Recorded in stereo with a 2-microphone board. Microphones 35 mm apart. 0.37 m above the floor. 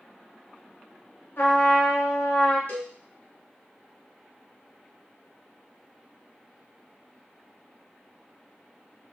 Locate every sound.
1.4 s a trumpet: 70° left (ahead or behind), 1.3 m
2.7 s a cowbell: 50° left (ahead or behind), 0.8 m